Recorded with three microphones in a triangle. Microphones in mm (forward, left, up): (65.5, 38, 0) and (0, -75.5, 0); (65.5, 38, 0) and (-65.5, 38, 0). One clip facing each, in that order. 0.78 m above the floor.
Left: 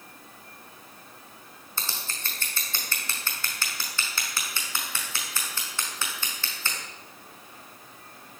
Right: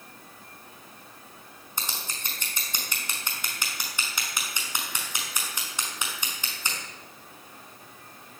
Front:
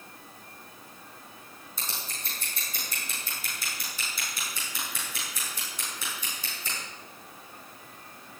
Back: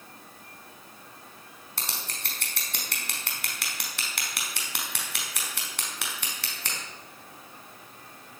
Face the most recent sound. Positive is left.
turn(degrees=165)